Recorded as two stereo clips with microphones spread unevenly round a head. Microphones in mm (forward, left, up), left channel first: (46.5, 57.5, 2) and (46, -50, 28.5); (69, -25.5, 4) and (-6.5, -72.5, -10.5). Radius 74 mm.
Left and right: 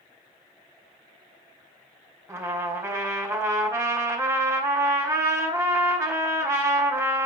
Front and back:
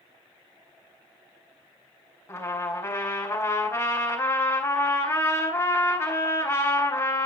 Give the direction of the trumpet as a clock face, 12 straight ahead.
1 o'clock.